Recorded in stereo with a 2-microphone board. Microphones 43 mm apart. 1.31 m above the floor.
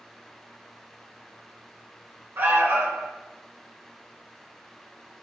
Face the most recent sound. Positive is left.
turn(degrees=-50)  # may be behind; listen again after turning